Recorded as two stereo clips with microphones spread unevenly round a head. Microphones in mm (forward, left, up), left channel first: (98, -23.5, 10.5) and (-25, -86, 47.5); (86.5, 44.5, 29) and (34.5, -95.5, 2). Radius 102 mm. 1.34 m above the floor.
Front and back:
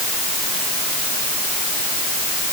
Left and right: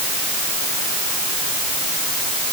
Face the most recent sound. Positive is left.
No sound to turn to.